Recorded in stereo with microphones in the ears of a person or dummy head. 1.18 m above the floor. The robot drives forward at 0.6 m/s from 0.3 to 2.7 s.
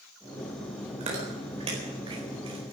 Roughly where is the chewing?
Right.